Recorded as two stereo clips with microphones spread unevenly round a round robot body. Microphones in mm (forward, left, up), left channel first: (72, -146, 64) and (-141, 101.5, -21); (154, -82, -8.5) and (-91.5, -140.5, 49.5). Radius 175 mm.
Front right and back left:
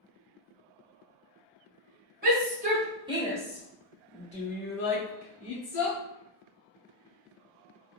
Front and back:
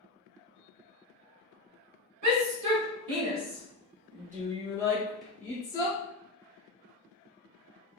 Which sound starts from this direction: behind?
A shout, at 2.2 s.